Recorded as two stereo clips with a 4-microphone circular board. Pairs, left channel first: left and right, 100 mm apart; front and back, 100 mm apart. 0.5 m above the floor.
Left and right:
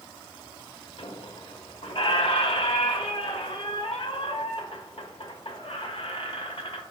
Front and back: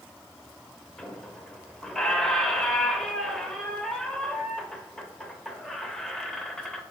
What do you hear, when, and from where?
1.0 s a squeak: 85° left, 1.1 m